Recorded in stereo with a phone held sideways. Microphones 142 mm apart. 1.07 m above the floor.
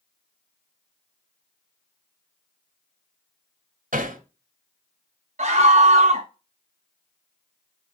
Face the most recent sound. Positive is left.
turn(degrees=-60)  # may be behind; listen again after turning